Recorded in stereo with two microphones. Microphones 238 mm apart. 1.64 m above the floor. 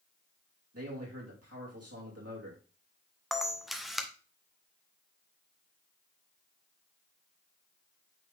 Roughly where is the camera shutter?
Centre.